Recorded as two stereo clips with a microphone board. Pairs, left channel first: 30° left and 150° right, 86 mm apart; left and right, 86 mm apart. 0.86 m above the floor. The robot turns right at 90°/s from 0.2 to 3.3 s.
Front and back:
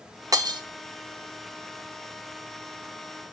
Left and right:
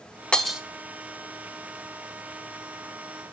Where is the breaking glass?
170° left, 0.6 m; by 0.6 s 165° right, 0.6 m.